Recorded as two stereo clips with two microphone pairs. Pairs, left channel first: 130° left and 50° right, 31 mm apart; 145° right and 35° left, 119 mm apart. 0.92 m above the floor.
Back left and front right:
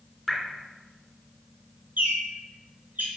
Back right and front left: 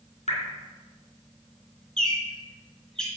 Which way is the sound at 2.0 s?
65° right.